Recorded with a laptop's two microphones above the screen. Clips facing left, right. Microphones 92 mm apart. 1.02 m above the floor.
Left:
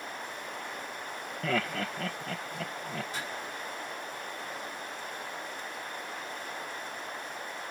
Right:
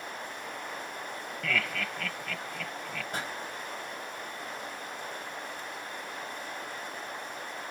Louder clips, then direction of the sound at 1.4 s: Left 2 dB; 35° left (ahead or behind).